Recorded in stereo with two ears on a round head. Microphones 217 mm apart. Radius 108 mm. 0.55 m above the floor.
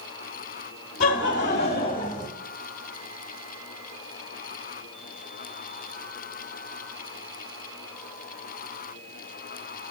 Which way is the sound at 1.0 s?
40° left (ahead or behind).